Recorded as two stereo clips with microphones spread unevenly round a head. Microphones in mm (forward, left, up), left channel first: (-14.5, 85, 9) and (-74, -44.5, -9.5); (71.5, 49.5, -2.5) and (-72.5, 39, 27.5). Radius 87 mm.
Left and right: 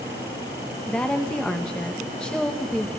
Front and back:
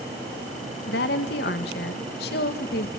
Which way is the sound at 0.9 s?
20° right.